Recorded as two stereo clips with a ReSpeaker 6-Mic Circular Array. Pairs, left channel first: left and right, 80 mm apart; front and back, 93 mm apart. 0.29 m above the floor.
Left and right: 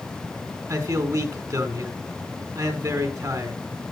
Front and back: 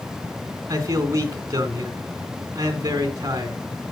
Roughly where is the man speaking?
Behind right.